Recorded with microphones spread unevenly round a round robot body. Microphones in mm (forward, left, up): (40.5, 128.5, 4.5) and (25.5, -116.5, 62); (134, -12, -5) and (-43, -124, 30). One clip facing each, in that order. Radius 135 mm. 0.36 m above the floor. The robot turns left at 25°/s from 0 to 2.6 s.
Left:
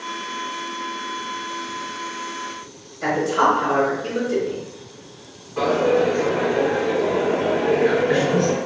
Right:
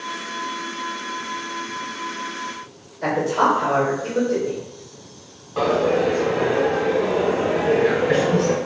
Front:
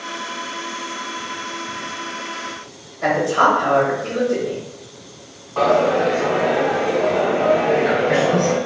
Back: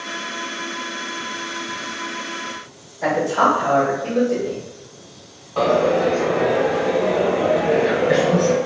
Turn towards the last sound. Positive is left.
turn(degrees=-80)